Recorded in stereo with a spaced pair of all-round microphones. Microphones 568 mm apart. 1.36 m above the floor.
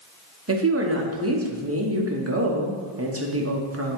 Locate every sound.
0.5 s a woman speaking: 25° right (ahead or behind), 0.7 m